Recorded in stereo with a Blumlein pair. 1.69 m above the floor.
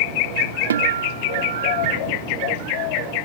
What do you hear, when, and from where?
0.7 s a guitar: 65° right